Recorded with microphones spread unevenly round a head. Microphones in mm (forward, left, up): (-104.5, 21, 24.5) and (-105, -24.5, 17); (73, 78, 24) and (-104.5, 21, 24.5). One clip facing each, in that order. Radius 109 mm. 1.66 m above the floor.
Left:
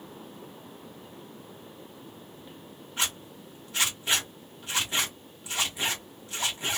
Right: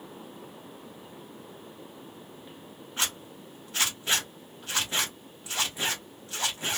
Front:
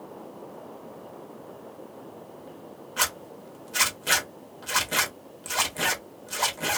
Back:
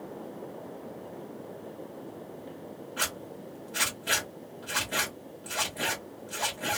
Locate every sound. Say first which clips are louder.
3.0 s a zipper: even, front 5 dB; 15° right, 0.8 m